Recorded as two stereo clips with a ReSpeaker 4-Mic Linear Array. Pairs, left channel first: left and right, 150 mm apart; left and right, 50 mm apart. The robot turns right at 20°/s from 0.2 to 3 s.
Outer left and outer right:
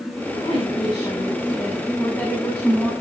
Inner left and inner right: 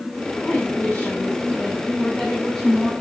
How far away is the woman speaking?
About 7.5 m.